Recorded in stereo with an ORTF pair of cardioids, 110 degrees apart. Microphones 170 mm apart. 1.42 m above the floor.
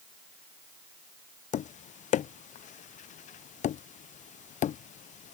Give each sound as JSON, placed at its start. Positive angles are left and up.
{"t": 1.5, "sound": "tapping", "azimuth_deg": 45}